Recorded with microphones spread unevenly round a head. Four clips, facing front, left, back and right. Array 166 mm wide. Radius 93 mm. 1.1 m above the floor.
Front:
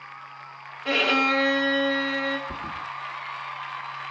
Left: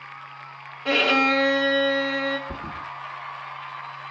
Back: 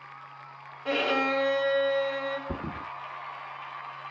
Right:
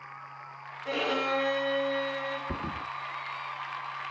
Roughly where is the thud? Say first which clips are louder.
Left 1 dB, front 2 dB; behind.